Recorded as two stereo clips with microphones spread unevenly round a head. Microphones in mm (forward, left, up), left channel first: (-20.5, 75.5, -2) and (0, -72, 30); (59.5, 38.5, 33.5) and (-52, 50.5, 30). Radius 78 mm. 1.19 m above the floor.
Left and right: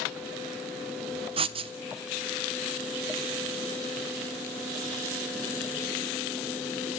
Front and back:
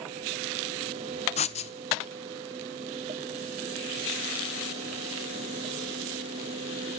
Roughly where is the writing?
Ahead right.